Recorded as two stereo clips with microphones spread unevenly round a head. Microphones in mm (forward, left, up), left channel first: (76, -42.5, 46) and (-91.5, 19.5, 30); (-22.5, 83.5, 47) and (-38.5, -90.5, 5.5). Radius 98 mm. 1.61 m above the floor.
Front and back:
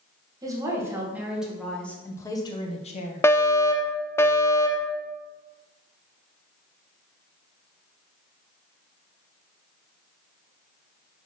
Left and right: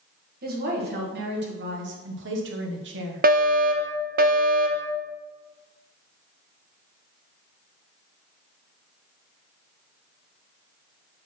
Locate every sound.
0.4 s a woman speaking: 130° right, 2 m; by 3.3 s 65° right, 1.5 m
3.2 s a fire alarm: 100° right, 0.8 m